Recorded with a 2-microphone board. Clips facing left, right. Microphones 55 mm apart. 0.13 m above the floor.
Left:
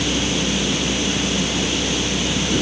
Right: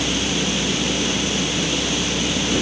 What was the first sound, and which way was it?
Only background noise.